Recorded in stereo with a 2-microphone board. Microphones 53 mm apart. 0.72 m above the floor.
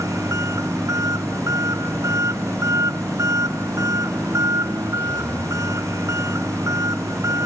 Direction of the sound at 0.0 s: 80° right.